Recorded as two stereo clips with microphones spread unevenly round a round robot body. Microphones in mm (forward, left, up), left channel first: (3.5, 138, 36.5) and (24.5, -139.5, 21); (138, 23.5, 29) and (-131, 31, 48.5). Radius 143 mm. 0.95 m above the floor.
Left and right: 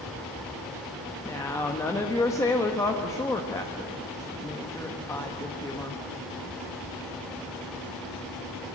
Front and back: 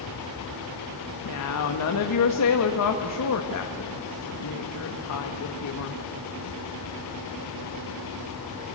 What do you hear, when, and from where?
1.2 s a woman speaking: 15° left, 1.2 m